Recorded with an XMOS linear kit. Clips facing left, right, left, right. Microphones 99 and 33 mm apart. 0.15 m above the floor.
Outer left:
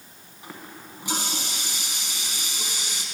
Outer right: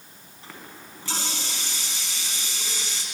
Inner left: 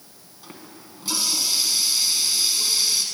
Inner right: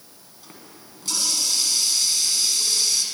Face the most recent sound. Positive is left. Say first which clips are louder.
# outer left 2 dB, inner left 3 dB
turn(degrees=15)  # may be behind; listen again after turning